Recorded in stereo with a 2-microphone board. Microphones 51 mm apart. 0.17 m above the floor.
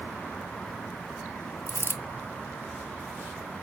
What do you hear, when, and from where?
1.7 s a dropped coin: 50° left (ahead or behind), 0.6 m